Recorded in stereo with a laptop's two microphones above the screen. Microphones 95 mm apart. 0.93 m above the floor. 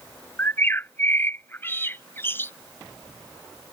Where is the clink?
No clink in this recording.